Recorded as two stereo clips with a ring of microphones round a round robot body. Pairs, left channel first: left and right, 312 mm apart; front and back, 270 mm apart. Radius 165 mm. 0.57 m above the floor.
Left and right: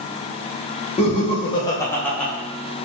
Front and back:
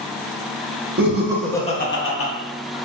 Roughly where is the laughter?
Behind left.